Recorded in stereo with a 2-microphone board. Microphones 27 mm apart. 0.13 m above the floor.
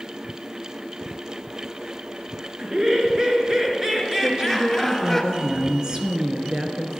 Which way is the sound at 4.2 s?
30° right (ahead or behind).